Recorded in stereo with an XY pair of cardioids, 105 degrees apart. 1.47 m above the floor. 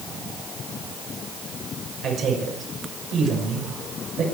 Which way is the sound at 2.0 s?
65° right.